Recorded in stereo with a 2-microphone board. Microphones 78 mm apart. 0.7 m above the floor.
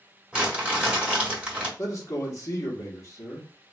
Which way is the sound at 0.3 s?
10° right (ahead or behind).